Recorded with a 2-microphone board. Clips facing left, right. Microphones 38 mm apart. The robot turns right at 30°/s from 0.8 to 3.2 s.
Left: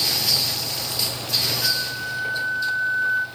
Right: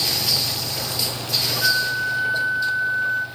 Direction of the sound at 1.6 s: 45° right.